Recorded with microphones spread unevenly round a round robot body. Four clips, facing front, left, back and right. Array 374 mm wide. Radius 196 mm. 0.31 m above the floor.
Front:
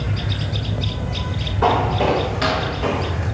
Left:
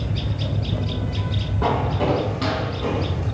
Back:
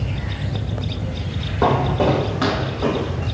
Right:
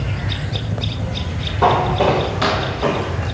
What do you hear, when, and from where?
1.6 s footsteps: straight behind, 4 m; by 3.2 s 175° right, 5 m